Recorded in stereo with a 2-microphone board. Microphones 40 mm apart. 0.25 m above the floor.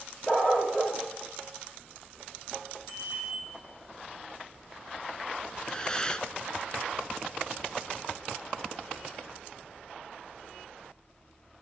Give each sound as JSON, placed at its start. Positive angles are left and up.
{"t": 0.3, "sound": "a dog barking", "side_deg": 30, "distance_m": 2.5}
{"t": 2.9, "sound": "a bicycle bell", "side_deg": 70, "distance_m": 10.0}
{"t": 5.5, "sound": "breathing", "side_deg": 20, "distance_m": 0.7}